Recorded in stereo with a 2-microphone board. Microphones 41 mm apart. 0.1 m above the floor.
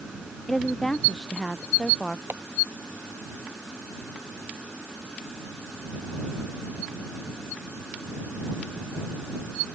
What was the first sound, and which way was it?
A woman speaking, 10° left (ahead or behind).